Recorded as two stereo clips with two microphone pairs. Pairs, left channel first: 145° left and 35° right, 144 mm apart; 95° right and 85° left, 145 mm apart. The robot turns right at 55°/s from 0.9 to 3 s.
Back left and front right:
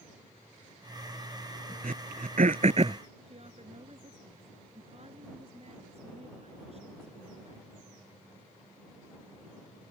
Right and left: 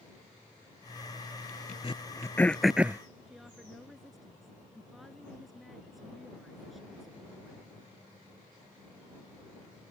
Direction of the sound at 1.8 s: 50° right.